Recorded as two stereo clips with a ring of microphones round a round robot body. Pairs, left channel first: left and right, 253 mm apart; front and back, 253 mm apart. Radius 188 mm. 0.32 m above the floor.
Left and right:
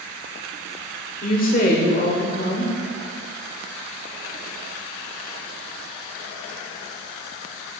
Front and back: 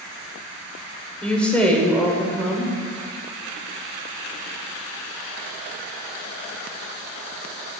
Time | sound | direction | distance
1.2 | a woman speaking | 80° left | 1.2 m